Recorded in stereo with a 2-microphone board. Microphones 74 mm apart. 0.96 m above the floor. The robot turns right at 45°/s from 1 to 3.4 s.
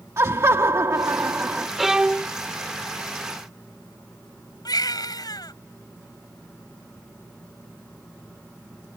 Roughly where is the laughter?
Ahead right.